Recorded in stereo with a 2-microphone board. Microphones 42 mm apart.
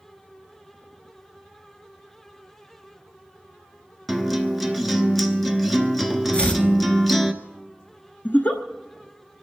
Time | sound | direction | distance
4.1 | a guitar | 5° left (ahead or behind) | 1.0 m
6.3 | chopping | 30° left (ahead or behind) | 1.1 m
8.2 | a giggle | 50° left (ahead or behind) | 0.9 m